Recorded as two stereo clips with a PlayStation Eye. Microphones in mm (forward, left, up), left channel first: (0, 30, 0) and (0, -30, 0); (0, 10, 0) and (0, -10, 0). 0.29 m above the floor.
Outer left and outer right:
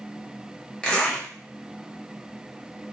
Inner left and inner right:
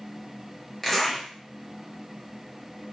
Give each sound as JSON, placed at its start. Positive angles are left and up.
{"t": 0.8, "sound": "a zipper", "side_deg": 15, "distance_m": 0.8}